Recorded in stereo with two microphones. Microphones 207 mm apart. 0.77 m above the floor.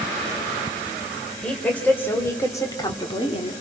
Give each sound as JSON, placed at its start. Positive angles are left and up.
{"t": 1.4, "sound": "a woman speaking", "side_deg": 5, "distance_m": 3.5}